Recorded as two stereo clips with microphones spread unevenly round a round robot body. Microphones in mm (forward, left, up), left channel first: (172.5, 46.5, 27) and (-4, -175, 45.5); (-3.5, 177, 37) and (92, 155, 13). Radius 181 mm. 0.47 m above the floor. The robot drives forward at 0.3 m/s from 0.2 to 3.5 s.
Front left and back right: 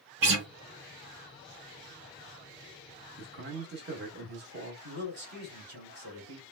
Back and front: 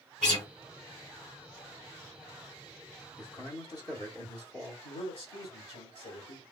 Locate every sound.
0.2 s a guitar: 155° right, 1.3 m; by 0.5 s 160° right, 1.3 m
3.2 s a man speaking: 150° right, 0.7 m; by 4.7 s 155° right, 0.8 m
4.8 s a man speaking: 165° right, 1.8 m